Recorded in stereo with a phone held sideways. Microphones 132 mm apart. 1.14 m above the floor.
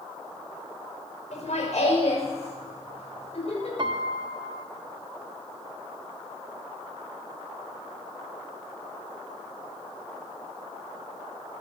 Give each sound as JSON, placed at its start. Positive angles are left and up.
{"t": 1.3, "sound": "laughter", "side_deg": 65, "distance_m": 4.5}
{"t": 3.8, "sound": "a piano", "side_deg": -40, "distance_m": 0.8}